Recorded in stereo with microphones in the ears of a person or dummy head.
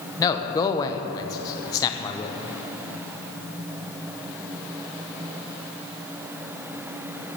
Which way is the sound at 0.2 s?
20° left (ahead or behind).